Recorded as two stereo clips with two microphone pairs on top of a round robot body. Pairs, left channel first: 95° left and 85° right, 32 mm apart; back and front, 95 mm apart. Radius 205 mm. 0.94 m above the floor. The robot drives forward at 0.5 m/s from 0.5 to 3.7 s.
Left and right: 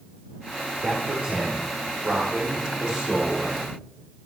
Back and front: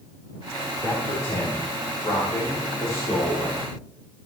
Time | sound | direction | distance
0.8 | a man speaking | 120° right | 3 m